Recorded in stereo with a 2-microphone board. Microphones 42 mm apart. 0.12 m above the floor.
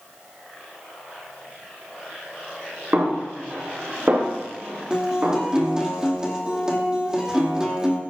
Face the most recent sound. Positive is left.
turn(degrees=-15)  # may be behind; listen again after turning